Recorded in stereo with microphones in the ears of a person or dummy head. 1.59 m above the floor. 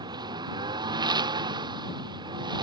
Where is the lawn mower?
25° right (ahead or behind).